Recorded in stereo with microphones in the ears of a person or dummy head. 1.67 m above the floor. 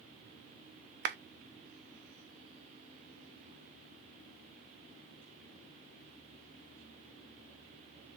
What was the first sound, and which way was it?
A clap, 60° right (ahead or behind).